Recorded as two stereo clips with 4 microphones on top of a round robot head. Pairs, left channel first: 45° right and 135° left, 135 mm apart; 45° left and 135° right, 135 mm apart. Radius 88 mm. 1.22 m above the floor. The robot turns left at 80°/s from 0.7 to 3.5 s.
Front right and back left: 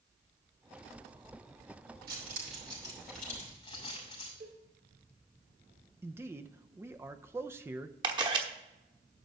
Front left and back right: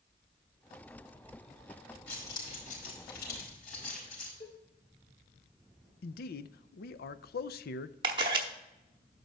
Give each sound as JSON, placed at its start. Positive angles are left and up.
{"t": 2.1, "sound": "keys jangling", "azimuth_deg": 125, "distance_m": 4.5}
{"t": 4.4, "sound": "a cowbell", "azimuth_deg": 95, "distance_m": 2.5}
{"t": 6.0, "sound": "a man speaking", "azimuth_deg": 60, "distance_m": 0.5}
{"t": 8.0, "sound": "a camera shutter", "azimuth_deg": 180, "distance_m": 0.9}